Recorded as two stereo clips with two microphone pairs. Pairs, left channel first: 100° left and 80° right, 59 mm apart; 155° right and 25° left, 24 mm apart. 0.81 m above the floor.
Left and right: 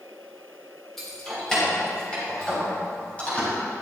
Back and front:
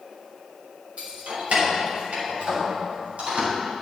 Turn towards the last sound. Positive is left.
turn(degrees=35)